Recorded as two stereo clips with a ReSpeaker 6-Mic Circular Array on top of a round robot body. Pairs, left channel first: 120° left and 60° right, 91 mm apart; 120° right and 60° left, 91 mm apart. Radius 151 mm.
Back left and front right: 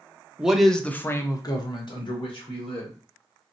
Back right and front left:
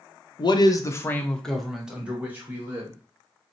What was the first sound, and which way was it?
A man speaking, 140° right.